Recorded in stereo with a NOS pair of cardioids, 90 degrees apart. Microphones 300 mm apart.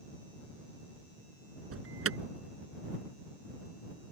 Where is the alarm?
50° right.